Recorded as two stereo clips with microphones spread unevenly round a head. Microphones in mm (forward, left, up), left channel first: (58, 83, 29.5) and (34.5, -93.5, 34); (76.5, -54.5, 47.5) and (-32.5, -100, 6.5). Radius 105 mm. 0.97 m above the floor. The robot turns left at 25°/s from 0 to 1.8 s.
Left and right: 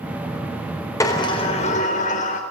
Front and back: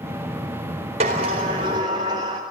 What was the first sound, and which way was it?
A sliding door, 160° left.